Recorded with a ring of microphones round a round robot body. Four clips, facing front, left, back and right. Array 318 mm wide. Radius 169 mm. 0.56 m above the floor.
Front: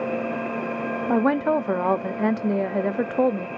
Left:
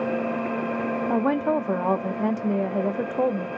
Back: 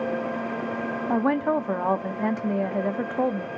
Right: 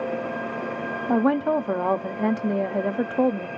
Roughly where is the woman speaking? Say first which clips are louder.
Right 3 dB, front 2 dB; ahead.